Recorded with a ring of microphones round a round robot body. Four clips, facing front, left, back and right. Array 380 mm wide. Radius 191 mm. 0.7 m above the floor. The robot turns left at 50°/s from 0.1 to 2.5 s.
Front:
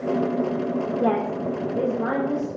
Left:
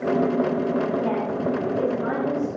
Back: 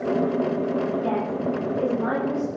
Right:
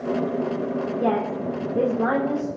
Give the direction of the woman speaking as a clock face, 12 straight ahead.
1 o'clock.